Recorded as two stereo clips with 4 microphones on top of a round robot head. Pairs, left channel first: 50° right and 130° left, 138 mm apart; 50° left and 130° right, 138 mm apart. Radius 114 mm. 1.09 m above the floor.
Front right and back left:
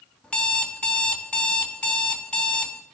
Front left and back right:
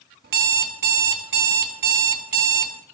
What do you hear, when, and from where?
0.2 s an alarm clock: 130° right, 1.0 m